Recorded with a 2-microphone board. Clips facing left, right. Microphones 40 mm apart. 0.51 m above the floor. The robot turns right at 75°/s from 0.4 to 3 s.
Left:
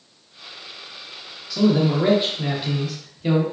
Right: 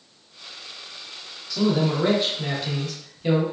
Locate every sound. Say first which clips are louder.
1.5 s a man speaking: left 3 dB; 10° left (ahead or behind), 0.7 m